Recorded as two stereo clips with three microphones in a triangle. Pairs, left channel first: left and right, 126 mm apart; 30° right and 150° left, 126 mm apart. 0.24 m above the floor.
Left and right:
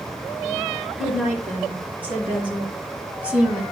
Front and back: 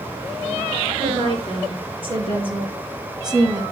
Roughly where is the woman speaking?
Behind.